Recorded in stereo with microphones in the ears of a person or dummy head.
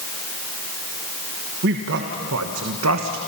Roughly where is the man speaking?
Right.